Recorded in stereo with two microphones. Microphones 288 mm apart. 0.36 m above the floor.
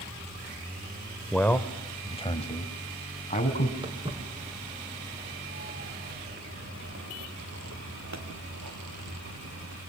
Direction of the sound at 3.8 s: 15° right (ahead or behind).